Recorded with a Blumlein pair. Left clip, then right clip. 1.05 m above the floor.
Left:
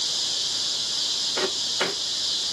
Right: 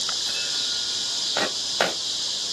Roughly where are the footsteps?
Ahead right.